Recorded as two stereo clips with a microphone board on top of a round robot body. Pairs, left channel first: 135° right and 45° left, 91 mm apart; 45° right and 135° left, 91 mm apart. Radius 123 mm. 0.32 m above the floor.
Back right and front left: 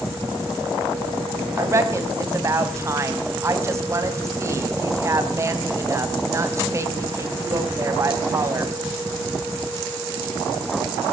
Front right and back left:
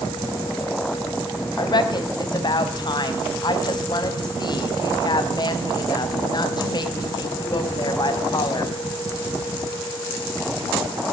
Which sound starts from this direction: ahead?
A woman speaking, at 1.6 s.